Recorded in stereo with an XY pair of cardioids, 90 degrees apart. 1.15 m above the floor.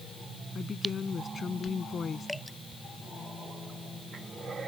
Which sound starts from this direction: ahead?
Dripping, at 2.3 s.